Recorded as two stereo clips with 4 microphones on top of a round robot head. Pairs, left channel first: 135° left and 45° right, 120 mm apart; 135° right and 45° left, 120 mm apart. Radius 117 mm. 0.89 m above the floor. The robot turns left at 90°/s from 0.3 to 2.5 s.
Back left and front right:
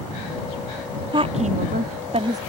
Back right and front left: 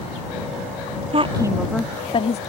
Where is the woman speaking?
5° left; by 2.4 s 110° right.